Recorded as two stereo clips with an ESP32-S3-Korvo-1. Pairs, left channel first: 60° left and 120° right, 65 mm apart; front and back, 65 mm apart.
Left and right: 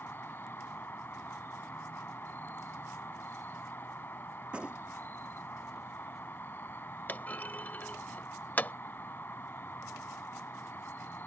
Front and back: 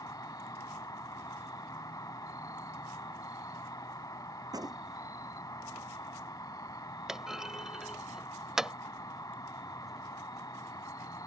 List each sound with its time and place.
0.0 s an insect: 5° left
4.5 s a gunshot: 165° left
7.1 s a clunk: 105° left